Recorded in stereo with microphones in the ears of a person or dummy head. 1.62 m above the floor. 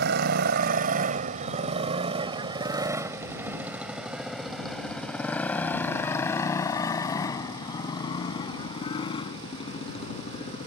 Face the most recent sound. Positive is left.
turn(degrees=35)  # may be behind; listen again after turning